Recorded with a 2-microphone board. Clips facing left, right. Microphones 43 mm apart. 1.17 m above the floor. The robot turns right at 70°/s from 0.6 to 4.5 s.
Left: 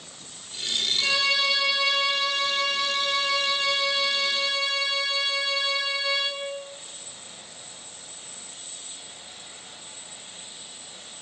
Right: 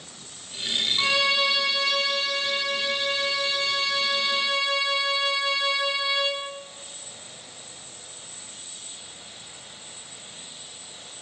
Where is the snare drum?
No snare drum in this recording.